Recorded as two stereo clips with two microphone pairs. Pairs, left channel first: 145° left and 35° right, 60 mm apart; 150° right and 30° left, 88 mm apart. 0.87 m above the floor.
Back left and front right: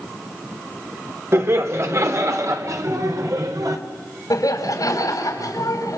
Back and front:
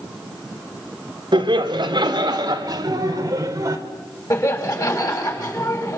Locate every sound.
1.3 s laughter: 5° left, 3 m; by 3.8 s 25° right, 3.5 m
4.3 s laughter: 160° left, 5 m